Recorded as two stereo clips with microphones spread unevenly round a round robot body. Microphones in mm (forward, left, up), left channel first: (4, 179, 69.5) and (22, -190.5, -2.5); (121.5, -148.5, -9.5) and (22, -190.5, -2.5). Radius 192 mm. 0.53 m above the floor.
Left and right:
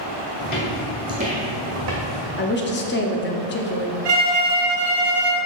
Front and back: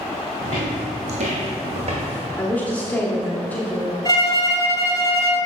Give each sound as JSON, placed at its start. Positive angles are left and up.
{"t": 0.4, "sound": "footsteps", "azimuth_deg": 150, "distance_m": 1.6}
{"t": 2.4, "sound": "a woman speaking", "azimuth_deg": 50, "distance_m": 0.6}
{"t": 4.0, "sound": "a violin", "azimuth_deg": -35, "distance_m": 1.3}